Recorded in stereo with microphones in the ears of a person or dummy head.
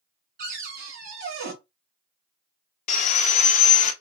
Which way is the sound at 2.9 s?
40° left (ahead or behind).